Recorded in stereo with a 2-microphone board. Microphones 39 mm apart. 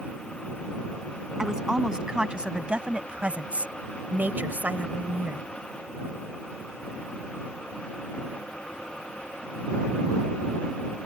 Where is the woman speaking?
15° right (ahead or behind); by 5.5 s 45° right (ahead or behind).